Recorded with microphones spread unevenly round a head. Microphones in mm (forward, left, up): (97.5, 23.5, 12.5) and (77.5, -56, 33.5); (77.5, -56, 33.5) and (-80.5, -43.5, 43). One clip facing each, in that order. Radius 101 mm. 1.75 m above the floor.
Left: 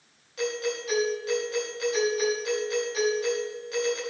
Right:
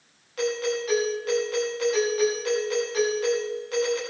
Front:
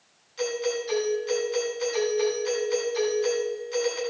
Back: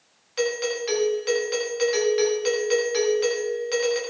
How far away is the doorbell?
About 5.5 m.